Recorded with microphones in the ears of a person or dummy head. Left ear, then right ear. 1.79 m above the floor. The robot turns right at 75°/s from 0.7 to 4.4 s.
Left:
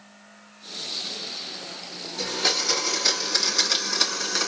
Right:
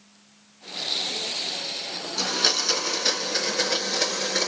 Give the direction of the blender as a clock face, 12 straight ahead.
2 o'clock.